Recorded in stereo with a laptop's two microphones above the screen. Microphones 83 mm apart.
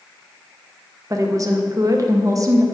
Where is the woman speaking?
40° right (ahead or behind), 1.1 m.